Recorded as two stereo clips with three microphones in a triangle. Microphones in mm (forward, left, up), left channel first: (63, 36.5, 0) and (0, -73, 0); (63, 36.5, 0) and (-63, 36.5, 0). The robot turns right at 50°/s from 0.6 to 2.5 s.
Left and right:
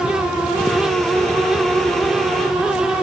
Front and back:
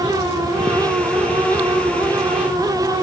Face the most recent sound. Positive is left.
No sound to turn to.